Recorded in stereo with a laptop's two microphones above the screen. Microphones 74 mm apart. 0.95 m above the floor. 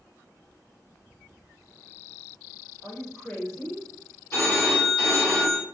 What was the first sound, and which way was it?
A woman speaking, 35° left (ahead or behind).